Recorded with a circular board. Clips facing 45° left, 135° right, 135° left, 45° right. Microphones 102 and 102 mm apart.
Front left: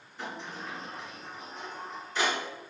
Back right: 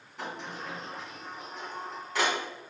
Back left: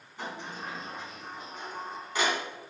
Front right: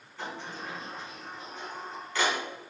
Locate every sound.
0.2 s a sliding door: 150° right, 3 m